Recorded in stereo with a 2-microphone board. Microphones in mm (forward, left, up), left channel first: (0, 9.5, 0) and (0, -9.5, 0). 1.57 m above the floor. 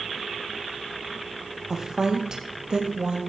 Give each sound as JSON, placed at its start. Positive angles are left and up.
{"t": 1.7, "sound": "a woman speaking", "side_deg": -35, "distance_m": 1.9}